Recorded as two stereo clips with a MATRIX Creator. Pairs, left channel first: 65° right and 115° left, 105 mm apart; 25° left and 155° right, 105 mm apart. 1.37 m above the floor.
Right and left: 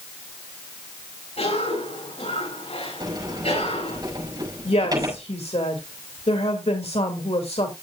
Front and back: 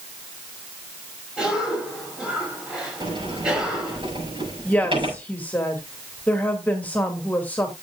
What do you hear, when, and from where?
1.4 s a cough: 75° right, 8 m
3.0 s a sliding door: 165° left, 5.5 m
4.7 s a woman speaking: 50° right, 2.5 m